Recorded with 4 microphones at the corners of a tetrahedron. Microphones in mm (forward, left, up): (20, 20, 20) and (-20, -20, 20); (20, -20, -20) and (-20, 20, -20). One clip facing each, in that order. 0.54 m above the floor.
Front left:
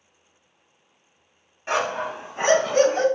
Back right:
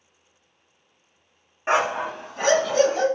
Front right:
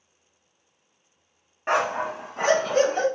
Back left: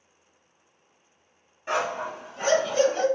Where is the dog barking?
80° right, 0.7 m; by 3.1 s 5° left, 1.4 m.